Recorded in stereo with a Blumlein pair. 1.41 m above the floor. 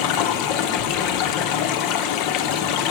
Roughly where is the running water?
Ahead left.